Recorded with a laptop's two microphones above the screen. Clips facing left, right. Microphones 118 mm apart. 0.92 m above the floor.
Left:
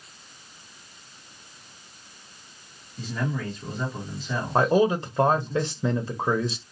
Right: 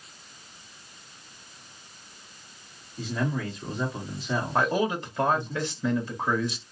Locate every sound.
3.0 s a man speaking: 10° right (ahead or behind), 1.3 m
4.5 s a man speaking: 25° left (ahead or behind), 0.7 m